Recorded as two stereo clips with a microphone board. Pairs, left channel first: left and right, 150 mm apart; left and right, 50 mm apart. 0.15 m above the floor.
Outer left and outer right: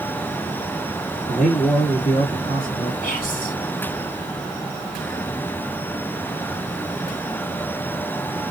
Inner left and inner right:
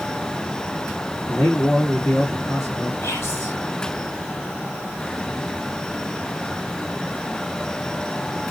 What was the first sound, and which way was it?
A man speaking, 60° left (ahead or behind).